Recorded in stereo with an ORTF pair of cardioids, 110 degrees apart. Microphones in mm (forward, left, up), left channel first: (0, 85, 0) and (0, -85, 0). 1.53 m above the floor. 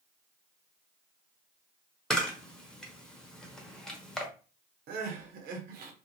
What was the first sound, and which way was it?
A camera shutter, 5° left.